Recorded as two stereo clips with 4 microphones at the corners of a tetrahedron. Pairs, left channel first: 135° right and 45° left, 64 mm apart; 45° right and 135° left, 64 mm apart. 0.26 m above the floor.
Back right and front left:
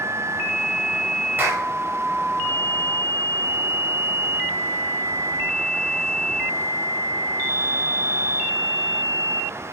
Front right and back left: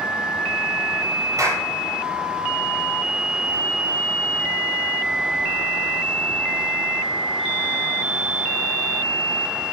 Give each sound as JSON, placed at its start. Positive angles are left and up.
{"t": 1.4, "sound": "a clap", "azimuth_deg": 100, "distance_m": 5.5}